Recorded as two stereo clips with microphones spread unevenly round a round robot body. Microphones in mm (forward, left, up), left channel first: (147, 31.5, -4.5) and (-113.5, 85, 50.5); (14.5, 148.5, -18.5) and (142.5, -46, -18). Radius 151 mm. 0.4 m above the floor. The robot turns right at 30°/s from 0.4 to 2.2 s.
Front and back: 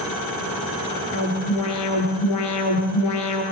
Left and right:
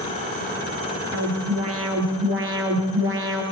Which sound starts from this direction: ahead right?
An alarm, at 1.1 s.